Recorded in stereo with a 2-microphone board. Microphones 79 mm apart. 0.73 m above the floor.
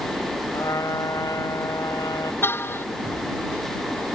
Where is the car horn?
30° left (ahead or behind).